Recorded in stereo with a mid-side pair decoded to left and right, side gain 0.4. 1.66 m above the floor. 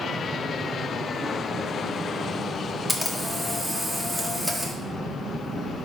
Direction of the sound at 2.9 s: 10° right.